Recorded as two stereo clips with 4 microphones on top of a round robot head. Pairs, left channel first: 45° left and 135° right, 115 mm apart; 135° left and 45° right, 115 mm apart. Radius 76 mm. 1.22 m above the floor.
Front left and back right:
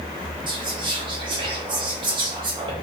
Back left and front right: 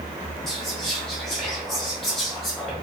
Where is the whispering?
140° right, 0.6 m.